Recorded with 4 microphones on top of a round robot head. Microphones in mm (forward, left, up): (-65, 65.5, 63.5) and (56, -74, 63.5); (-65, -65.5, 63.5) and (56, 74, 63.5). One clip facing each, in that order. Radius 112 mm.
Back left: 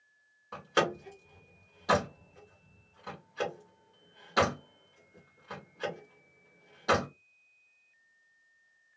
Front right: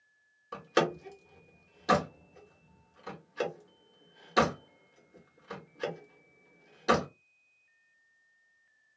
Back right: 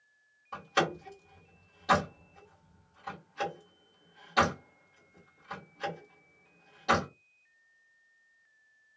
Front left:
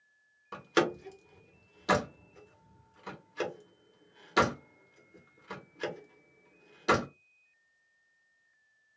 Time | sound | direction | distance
0.5 | a door slam | 15° left | 1.2 m